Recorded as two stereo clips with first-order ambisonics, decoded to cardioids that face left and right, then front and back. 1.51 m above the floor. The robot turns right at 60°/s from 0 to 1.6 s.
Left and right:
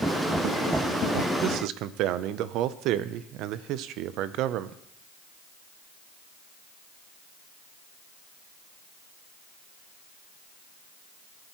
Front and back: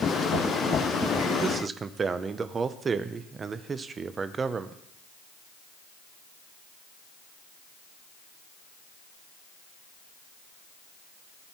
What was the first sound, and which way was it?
A man speaking, 125° right.